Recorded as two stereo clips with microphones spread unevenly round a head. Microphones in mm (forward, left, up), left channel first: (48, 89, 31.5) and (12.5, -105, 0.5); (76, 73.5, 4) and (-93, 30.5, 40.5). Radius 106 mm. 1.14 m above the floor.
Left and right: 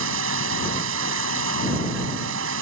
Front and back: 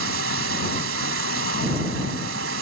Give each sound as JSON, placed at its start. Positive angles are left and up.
{"t": 0.0, "sound": "running water", "azimuth_deg": -135}